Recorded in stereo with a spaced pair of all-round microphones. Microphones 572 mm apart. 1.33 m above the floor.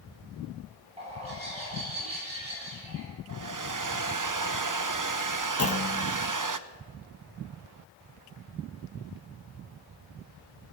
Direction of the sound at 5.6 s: 25° left (ahead or behind).